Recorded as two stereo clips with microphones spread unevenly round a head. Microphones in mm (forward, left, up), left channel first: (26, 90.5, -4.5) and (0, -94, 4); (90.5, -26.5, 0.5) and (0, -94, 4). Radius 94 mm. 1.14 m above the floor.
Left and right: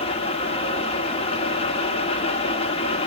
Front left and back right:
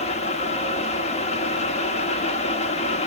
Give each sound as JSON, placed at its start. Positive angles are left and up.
{"t": 0.0, "sound": "a fan", "azimuth_deg": 25, "distance_m": 1.1}